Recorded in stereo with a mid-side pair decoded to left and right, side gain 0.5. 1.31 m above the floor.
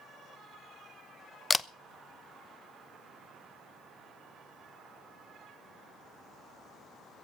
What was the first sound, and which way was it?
A camera shutter, 20° left.